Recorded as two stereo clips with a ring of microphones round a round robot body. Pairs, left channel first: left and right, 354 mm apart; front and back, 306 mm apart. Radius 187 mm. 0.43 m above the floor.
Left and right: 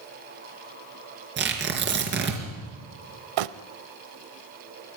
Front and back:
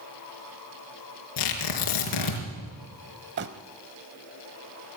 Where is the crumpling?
120° right, 0.7 m.